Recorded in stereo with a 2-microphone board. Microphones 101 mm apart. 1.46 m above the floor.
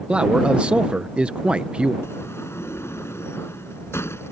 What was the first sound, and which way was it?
A man speaking, 10° right (ahead or behind).